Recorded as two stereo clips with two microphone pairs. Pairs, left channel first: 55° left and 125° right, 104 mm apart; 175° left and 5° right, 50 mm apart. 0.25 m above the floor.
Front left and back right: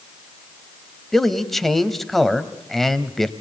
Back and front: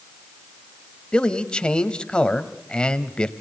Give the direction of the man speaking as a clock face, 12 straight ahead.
7 o'clock.